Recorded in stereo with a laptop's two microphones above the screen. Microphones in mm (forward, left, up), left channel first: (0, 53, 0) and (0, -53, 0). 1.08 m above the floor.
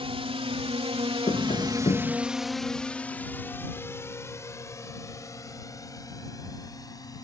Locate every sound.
0.0 s a drone: 65° right (ahead or behind); by 7.2 s 35° left (ahead or behind)
1.3 s tapping: 65° left (ahead or behind)